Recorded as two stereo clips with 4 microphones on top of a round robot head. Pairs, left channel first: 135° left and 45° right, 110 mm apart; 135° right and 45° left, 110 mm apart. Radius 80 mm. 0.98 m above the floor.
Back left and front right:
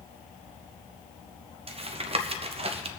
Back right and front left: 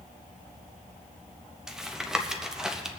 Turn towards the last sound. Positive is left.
turn(degrees=-40)